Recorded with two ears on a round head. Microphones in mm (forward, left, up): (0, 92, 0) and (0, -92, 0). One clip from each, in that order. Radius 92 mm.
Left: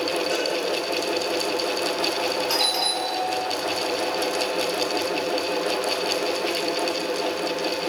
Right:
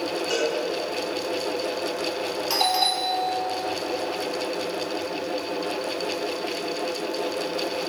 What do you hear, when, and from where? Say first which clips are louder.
0.3 s a cowbell: even; 75° right (ahead or behind), 7 m
2.5 s a doorbell: right 4 dB; 5° right (ahead or behind), 1.8 m